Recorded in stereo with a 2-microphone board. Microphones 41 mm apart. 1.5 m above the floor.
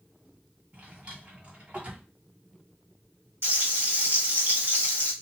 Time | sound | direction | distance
0.7 | a drawer | 35° right (ahead or behind) | 1.8 m
3.4 | frying | 60° right (ahead or behind) | 1.5 m